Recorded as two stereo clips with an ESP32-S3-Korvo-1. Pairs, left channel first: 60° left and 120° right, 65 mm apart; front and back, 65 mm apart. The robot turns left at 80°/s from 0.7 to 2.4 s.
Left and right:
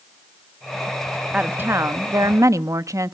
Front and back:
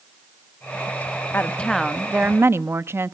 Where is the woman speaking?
50° right, 0.8 m; by 3.1 s 135° right, 0.8 m.